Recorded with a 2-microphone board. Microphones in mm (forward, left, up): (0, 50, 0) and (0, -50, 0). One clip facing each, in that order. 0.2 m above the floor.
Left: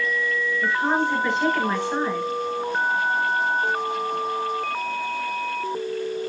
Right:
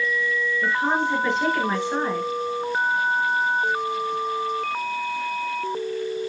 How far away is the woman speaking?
About 3.5 m.